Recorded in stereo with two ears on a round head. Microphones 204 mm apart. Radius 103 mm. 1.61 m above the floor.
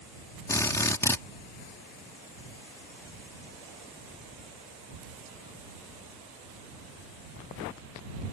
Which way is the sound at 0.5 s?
10° left (ahead or behind).